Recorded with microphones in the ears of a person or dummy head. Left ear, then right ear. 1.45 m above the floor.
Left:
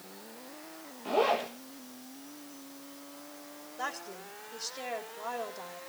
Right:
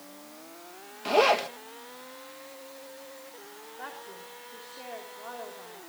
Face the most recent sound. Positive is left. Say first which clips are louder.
# left 5 dB
turn(degrees=85)